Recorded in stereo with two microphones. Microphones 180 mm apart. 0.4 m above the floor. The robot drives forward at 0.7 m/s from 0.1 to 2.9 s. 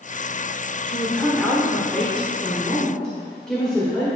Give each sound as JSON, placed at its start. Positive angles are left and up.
{"t": 0.9, "sound": "a woman speaking", "side_deg": 5, "distance_m": 1.3}